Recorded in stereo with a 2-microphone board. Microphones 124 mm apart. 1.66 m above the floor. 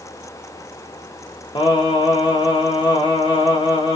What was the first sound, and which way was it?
Singing, 40° left (ahead or behind).